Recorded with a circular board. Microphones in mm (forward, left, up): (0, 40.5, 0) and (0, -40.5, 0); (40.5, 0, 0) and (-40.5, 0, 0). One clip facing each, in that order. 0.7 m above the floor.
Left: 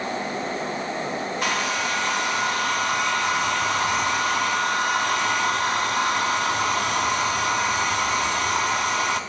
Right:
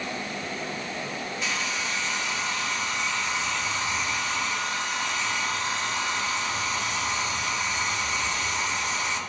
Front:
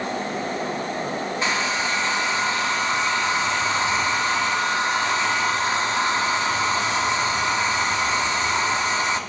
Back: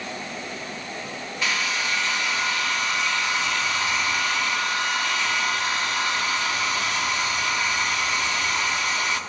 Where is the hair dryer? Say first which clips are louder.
Left 6 dB, front 1 dB; 60° left, 0.6 m.